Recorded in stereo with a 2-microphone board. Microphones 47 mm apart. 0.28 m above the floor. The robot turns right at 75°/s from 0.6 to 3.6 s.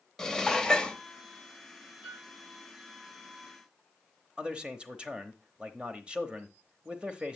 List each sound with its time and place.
0.2 s dishes clattering: 15° left (ahead or behind), 0.8 m; by 1.0 s 20° left (ahead or behind), 0.8 m
2.0 s a piano: 80° left, 7 m; by 2.3 s 65° left (ahead or behind), 7 m
4.4 s a man speaking: 20° right (ahead or behind), 0.9 m